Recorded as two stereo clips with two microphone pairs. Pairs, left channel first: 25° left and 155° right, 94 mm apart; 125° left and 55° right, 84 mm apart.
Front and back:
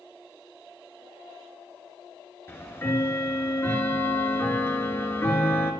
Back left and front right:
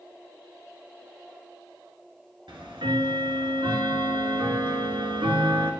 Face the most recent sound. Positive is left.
turn(degrees=-40)